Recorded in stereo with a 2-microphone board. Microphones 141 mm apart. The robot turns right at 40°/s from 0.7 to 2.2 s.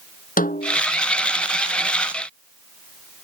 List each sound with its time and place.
0.4 s a snare drum: 75° left (ahead or behind); by 0.8 s 70° left (ahead or behind)